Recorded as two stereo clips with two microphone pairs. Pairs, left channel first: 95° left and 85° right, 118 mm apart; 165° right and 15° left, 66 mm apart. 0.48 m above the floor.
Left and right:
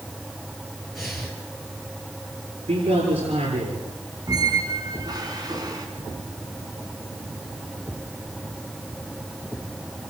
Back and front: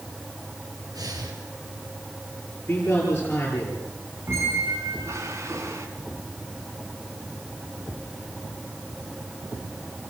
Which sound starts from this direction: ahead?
Breathing, at 0.9 s.